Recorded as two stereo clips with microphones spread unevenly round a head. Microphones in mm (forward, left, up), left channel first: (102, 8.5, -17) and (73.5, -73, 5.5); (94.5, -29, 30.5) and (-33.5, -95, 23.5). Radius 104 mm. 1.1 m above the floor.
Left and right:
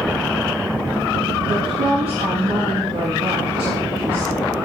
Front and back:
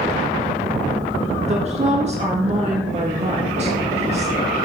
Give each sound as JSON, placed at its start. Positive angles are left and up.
{"t": 1.4, "sound": "a woman speaking", "azimuth_deg": -115, "distance_m": 1.8}